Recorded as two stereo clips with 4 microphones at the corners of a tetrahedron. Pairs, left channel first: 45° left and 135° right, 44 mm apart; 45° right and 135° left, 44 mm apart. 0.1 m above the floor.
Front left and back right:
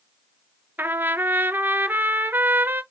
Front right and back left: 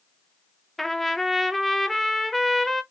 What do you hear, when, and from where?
0.8 s a trumpet: 125° right, 0.6 m